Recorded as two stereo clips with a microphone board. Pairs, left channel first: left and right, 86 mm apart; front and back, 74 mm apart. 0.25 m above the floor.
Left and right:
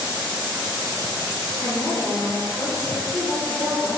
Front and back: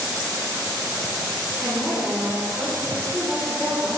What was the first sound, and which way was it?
A woman speaking, 105° left.